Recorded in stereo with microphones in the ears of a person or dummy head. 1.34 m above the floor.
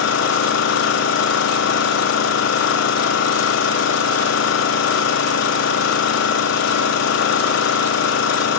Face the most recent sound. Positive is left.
turn(degrees=70)  # may be behind; listen again after turning